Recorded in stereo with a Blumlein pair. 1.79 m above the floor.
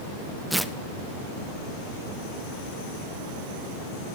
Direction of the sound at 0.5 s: Straight ahead.